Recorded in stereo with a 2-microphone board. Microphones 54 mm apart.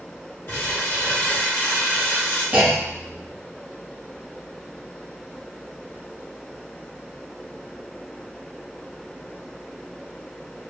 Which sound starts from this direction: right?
A clunk, at 2.5 s.